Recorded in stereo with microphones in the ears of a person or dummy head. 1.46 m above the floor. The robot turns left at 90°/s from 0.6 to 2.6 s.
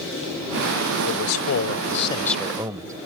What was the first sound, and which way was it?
A man speaking, 125° left.